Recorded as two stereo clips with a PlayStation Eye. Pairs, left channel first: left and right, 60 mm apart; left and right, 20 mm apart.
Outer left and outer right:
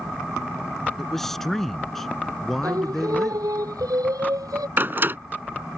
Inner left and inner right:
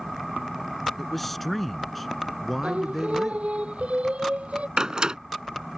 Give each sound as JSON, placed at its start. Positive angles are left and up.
{"t": 1.0, "sound": "a man speaking", "side_deg": 5}
{"t": 2.6, "sound": "singing", "side_deg": -80}
{"t": 4.8, "sound": "a door slam", "side_deg": -35}